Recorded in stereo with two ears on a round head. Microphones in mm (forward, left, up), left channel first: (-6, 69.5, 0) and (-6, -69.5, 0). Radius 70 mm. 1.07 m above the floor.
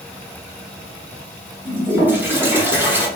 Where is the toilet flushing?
15° right (ahead or behind), 1.0 m.